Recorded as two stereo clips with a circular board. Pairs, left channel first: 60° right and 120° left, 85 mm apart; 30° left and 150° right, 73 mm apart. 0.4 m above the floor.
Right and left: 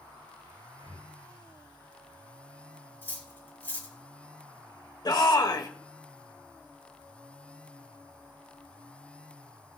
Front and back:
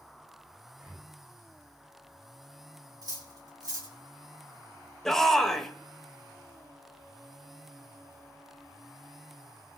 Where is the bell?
No bell in this recording.